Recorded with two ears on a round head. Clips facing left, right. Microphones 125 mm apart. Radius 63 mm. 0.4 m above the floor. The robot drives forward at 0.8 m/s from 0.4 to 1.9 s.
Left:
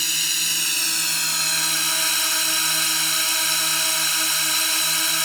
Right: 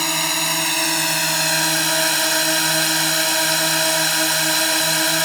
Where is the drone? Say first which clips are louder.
Right 14 dB; 45° right (ahead or behind); by 5.2 s 60° right (ahead or behind).